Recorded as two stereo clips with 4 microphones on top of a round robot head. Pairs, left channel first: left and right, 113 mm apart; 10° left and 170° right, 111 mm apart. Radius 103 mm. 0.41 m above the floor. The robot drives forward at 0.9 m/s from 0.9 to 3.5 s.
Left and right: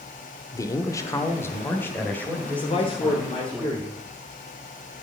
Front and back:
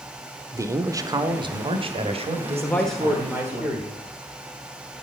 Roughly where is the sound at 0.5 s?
Behind left.